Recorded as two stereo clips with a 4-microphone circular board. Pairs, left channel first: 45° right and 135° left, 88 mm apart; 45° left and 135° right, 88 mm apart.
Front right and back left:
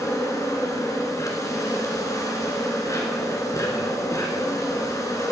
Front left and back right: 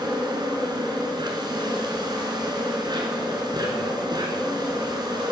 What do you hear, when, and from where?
0.0 s an insect: 95° right, 2 m